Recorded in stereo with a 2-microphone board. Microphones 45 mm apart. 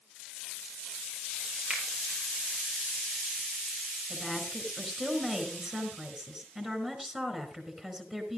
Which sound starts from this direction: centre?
A woman speaking, at 4.1 s.